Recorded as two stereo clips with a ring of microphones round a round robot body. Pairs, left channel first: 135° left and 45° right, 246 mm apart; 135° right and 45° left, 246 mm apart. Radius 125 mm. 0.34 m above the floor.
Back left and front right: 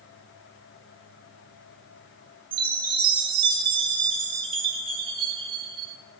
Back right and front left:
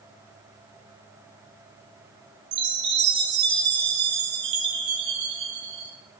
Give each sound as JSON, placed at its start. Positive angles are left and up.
{"t": 2.5, "sound": "a chime", "azimuth_deg": 20, "distance_m": 1.3}